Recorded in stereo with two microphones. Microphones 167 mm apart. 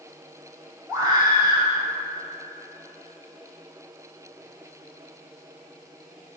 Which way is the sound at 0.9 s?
30° right (ahead or behind).